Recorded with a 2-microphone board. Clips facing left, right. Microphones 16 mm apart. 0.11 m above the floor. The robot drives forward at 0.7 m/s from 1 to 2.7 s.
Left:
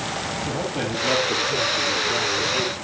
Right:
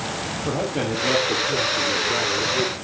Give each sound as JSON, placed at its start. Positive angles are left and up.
{"t": 0.5, "sound": "a man speaking", "side_deg": -50, "distance_m": 3.5}